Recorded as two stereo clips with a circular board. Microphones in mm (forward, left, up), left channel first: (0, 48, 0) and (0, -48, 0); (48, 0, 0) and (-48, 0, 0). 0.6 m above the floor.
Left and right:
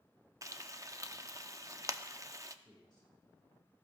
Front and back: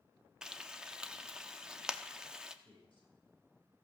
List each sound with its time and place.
0.4 s frying: 105° right, 0.5 m
2.6 s a man speaking: 5° left, 4.5 m